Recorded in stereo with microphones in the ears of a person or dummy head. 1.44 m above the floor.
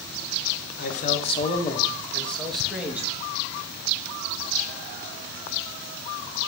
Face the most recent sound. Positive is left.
turn(degrees=-10)  # may be behind; listen again after turning